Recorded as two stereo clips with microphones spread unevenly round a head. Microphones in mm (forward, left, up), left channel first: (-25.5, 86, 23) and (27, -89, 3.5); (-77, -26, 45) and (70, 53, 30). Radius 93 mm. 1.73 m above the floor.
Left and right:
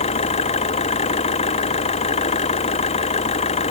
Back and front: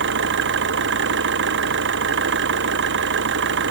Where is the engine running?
45° left.